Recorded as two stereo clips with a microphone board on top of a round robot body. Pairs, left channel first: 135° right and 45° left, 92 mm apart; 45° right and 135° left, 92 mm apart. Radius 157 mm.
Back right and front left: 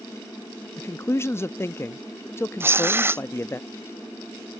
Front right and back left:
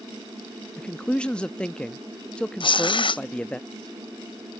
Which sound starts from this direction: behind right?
A man speaking, at 0.8 s.